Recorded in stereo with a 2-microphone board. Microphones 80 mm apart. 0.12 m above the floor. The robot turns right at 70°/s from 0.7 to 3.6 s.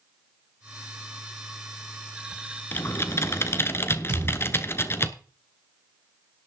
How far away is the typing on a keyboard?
About 1.0 m.